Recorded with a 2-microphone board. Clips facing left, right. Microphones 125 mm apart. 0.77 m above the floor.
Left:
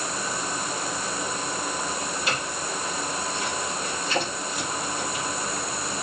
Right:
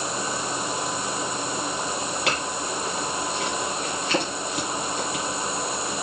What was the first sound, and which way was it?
A clink, 80° right.